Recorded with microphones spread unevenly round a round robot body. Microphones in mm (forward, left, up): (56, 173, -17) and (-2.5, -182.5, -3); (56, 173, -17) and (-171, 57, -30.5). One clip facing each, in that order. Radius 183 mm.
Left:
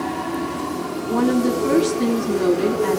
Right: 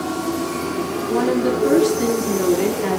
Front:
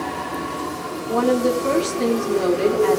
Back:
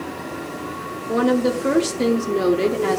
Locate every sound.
1.1 s a woman speaking: 165° left, 0.7 m